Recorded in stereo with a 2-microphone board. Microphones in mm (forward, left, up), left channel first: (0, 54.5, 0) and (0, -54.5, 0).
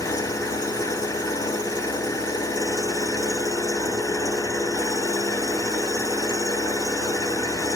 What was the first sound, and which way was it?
An engine running, 30° left (ahead or behind).